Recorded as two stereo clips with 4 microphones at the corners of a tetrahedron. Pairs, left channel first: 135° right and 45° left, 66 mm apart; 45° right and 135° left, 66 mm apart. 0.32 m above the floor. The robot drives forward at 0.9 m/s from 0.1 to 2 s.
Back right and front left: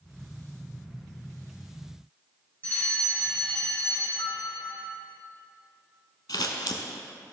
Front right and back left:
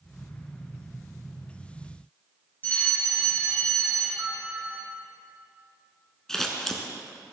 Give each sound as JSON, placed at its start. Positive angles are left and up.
{"t": 2.6, "sound": "a fire alarm", "azimuth_deg": -85, "distance_m": 2.5}
{"t": 4.2, "sound": "a piano", "azimuth_deg": -145, "distance_m": 3.0}
{"t": 6.3, "sound": "scissors", "azimuth_deg": -130, "distance_m": 0.8}